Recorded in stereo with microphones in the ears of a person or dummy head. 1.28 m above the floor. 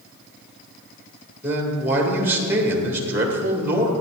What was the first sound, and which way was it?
A man speaking, 20° right (ahead or behind).